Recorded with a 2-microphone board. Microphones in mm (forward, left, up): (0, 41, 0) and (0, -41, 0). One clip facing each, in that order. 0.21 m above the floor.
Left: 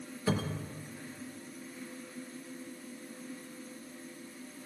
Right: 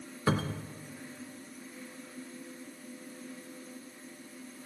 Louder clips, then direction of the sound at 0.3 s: Right 2 dB; 60° right (ahead or behind).